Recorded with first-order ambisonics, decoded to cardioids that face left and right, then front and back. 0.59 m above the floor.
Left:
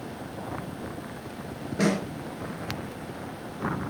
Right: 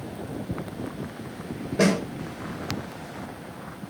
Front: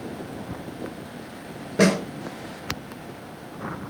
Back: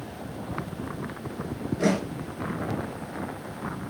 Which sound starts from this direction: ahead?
A snare drum, at 1.8 s.